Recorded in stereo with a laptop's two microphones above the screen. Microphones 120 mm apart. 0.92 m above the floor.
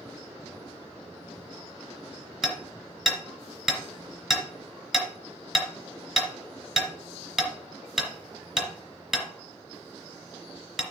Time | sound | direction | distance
2.4 | hammering | centre (ahead or behind) | 3 m